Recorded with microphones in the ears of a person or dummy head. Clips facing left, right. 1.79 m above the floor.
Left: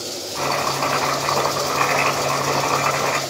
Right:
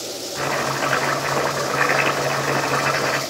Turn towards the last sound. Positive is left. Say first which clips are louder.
# left 1 dB
turn(degrees=0)  # may be behind; listen again after turning